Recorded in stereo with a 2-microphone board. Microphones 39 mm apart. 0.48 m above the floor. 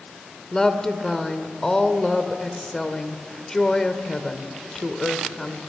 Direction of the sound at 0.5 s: 15° left (ahead or behind).